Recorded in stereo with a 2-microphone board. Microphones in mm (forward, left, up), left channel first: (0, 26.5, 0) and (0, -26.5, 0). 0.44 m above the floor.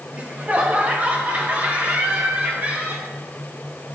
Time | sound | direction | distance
0.1 | laughter | 30° right (ahead or behind) | 1.7 m